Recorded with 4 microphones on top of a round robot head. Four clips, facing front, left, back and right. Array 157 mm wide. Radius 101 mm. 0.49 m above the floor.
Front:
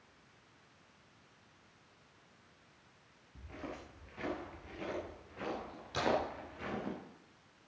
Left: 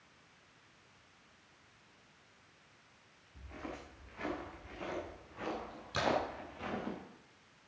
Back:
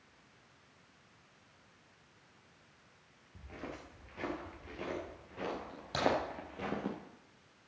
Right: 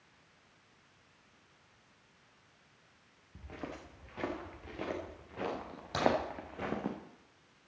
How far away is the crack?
About 7.5 m.